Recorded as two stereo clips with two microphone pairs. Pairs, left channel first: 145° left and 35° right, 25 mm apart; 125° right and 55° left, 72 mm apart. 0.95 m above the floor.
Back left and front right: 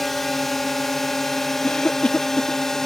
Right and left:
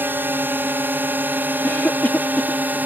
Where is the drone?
75° left; by 2.9 s 90° left.